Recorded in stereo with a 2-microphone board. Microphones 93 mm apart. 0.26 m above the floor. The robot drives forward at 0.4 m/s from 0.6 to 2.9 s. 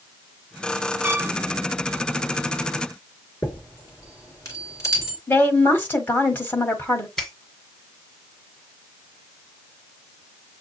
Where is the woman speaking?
20° left (ahead or behind), 1.1 m.